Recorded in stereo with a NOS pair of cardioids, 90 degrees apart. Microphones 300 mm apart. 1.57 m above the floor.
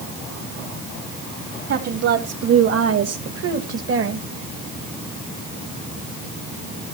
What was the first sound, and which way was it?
A woman speaking, 55° right.